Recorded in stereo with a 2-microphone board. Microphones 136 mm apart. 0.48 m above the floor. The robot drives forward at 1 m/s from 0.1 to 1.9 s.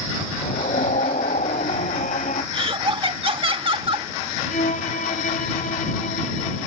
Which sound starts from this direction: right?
Laughter, at 2.5 s.